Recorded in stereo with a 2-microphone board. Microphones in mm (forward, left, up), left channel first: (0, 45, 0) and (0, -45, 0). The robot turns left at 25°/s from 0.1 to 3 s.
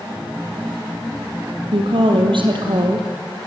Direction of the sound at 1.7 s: 85° right.